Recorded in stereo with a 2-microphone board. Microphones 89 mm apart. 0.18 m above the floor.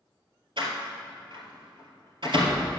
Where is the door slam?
65° right (ahead or behind), 2.5 m.